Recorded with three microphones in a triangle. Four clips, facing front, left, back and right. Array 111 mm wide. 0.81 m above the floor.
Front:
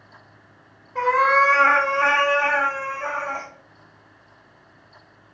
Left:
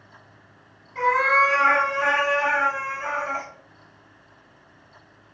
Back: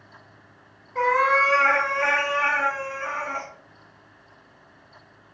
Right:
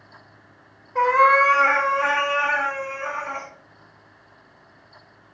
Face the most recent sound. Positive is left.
turn(degrees=30)